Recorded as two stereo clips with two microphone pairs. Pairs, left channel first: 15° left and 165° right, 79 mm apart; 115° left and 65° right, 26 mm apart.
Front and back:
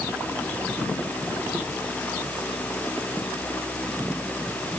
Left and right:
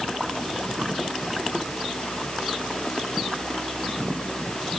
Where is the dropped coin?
I don't hear a dropped coin.